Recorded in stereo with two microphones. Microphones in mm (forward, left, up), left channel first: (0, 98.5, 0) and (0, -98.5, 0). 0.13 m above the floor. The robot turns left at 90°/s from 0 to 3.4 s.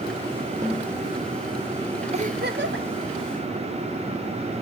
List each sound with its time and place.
0.6 s a snare drum: 160° right, 3 m; by 1.0 s 165° left, 3 m
2.1 s a giggle: 30° right, 0.9 m; by 2.9 s 95° right, 0.9 m